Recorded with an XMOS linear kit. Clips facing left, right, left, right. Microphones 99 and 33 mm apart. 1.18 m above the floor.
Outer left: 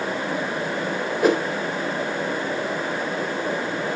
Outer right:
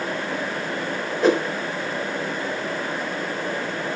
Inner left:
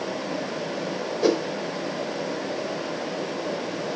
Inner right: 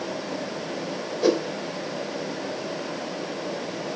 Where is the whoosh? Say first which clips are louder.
Outer right 1 dB, even; 10° left (ahead or behind), 3 m.